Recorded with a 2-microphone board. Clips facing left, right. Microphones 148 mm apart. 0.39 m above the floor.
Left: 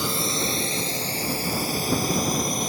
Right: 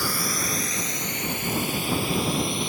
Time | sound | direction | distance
0.0 | a drone | 20° left (ahead or behind) | ?